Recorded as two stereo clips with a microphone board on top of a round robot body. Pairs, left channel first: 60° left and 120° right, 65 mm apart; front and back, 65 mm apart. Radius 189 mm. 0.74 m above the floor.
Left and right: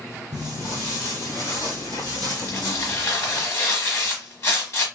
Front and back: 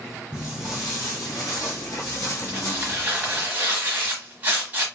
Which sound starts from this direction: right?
Footsteps, at 0.3 s.